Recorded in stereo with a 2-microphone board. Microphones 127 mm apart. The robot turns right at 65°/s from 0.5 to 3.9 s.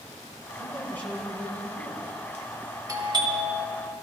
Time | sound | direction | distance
0.6 | a man speaking | 140° left | 3.5 m
2.9 | a doorbell | 125° right | 1.8 m